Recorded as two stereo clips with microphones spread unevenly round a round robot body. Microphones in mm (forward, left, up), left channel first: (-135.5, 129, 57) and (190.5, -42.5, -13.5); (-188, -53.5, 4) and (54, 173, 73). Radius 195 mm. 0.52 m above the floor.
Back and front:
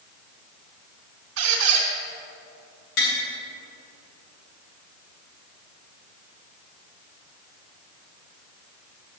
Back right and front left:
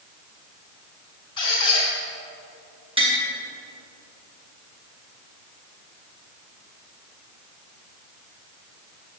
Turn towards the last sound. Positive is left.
turn(degrees=120)